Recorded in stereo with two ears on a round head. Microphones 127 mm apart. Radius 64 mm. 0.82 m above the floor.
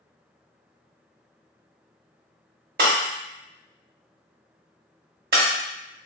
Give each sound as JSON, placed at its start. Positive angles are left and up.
{"t": 2.8, "sound": "breaking glass", "side_deg": -70, "distance_m": 1.1}